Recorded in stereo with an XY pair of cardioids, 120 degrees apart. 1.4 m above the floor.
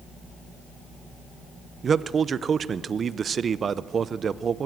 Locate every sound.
1.8 s a man speaking: 40° right, 0.7 m